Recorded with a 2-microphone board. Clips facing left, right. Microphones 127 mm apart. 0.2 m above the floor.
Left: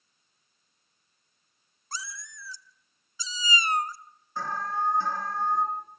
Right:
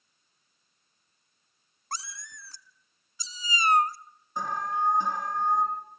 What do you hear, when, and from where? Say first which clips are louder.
1.9 s a cat meowing: right 2 dB; 50° right (ahead or behind), 0.7 m
4.4 s an alarm: right 1 dB; 15° right (ahead or behind), 4.5 m